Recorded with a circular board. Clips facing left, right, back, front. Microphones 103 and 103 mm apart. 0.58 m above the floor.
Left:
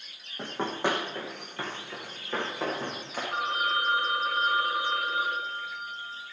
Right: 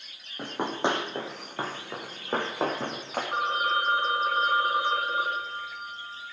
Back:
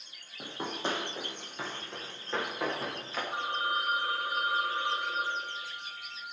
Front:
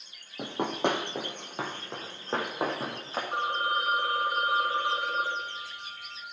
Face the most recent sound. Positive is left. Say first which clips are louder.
# right 2 dB, front 4 dB
turn(degrees=-35)